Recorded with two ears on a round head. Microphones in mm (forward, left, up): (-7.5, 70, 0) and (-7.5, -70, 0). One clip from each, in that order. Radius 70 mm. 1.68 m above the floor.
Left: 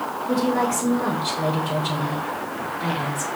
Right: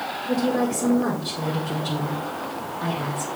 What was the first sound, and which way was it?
A woman speaking, 55° left (ahead or behind).